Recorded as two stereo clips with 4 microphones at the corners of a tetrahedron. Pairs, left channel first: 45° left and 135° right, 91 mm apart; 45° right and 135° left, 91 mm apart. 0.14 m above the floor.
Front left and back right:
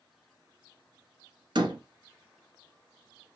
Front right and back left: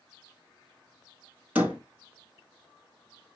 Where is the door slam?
155° right, 1.7 m.